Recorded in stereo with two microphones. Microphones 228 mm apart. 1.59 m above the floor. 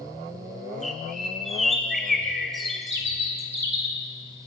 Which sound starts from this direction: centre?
A bird, at 0.8 s.